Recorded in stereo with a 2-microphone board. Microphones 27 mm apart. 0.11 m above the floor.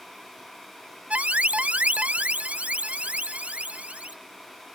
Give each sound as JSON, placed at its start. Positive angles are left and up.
{"t": 1.1, "sound": "an alarm", "side_deg": -50}